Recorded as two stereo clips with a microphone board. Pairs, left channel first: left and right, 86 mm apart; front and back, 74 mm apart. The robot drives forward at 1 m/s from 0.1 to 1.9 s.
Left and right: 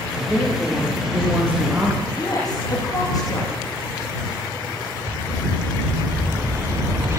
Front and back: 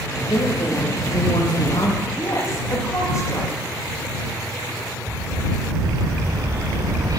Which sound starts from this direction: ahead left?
A woman speaking, at 2.1 s.